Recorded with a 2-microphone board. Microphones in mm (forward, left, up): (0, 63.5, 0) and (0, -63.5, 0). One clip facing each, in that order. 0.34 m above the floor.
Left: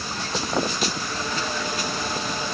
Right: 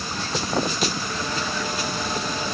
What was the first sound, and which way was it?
Only background noise.